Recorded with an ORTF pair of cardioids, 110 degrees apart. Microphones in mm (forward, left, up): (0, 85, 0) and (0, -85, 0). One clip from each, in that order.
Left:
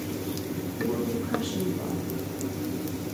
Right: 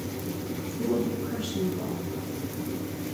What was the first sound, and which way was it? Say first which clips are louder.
A woman speaking: right 1 dB; 10° right.